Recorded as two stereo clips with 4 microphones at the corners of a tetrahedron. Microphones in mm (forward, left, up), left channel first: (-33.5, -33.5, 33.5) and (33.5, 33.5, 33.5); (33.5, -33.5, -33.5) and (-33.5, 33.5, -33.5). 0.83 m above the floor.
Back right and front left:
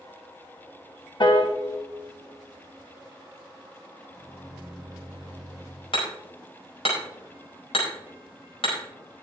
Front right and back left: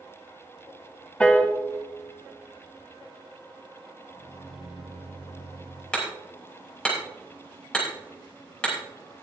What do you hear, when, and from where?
1.2 s a piano: 120° right, 1.1 m
4.1 s a microwave: 40° right, 4.5 m
5.9 s hammering: 125° right, 5 m